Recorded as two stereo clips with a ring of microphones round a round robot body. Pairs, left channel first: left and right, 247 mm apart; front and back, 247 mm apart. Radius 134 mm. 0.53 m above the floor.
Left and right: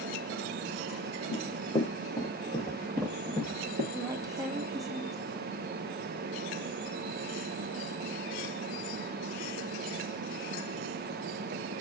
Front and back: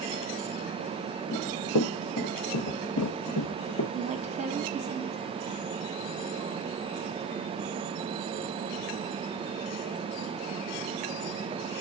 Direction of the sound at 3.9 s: 150° right.